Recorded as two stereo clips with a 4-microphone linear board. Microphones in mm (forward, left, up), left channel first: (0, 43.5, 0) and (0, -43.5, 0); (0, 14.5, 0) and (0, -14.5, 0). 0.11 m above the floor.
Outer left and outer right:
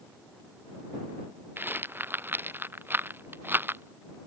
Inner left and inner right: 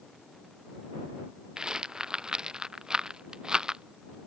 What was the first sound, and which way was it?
A rattle, 25° right (ahead or behind).